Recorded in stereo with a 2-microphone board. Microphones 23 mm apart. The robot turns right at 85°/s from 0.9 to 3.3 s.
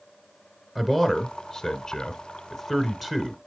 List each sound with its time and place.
0.8 s a man speaking: 10° left (ahead or behind), 1.2 m; by 3.4 s 15° right (ahead or behind), 1.2 m